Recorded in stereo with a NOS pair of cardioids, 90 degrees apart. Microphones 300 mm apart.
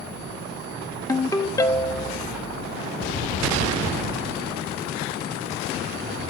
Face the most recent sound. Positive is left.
turn(degrees=10)